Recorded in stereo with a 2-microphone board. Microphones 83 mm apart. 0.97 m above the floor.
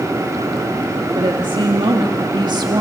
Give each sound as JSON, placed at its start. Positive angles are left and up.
{"t": 1.1, "sound": "a woman speaking", "side_deg": -80, "distance_m": 1.6}